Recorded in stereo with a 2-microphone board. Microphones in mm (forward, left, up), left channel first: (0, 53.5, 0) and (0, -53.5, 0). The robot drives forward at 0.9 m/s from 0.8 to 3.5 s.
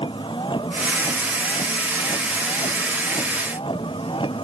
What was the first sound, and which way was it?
A vehicle, 50° left (ahead or behind).